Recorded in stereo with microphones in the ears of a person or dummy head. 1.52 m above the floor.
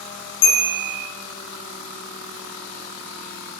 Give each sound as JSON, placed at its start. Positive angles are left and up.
{"t": 0.4, "sound": "a bell", "side_deg": 85, "distance_m": 3.5}